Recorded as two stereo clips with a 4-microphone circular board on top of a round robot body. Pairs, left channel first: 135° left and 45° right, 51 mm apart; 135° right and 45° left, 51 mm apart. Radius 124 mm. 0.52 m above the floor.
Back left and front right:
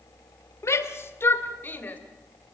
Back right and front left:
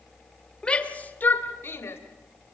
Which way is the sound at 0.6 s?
155° left.